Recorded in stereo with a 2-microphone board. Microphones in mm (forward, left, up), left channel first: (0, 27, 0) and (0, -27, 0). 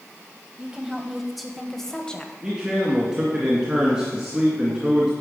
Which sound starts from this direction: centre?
A woman speaking, at 0.6 s.